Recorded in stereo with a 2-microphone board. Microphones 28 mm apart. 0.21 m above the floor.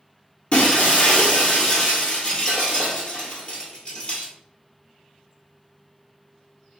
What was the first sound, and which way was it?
Breaking glass, 45° left (ahead or behind).